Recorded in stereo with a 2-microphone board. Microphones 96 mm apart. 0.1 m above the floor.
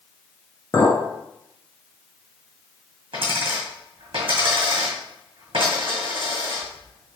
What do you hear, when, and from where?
0.7 s a clink: 35° left (ahead or behind), 1.2 m
3.1 s a dropped coin: 65° right (ahead or behind), 1.9 m